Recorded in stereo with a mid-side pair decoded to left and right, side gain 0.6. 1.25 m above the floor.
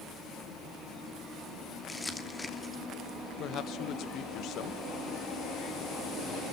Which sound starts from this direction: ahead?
Crumpling, at 1.9 s.